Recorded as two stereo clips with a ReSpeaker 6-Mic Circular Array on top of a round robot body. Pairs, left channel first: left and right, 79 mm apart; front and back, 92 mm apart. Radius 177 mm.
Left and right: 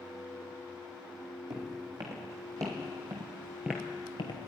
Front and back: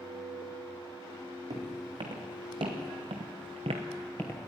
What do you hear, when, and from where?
1.5 s footsteps: 140° right, 3.5 m; by 4.5 s 60° left, 1.0 m